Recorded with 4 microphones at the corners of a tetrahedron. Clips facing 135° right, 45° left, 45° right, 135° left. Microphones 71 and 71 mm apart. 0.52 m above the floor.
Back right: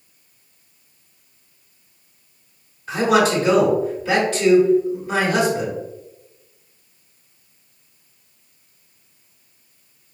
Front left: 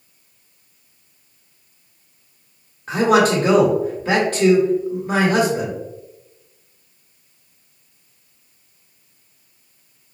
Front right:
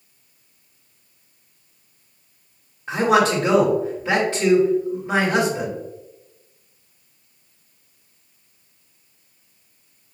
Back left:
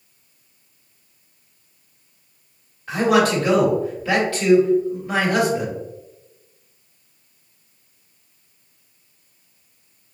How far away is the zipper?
No zipper in this recording.